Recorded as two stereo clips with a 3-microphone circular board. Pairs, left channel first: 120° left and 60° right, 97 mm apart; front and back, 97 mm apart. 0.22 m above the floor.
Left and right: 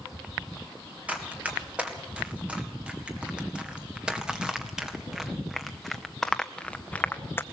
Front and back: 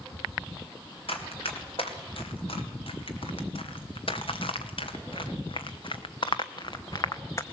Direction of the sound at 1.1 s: 15° left.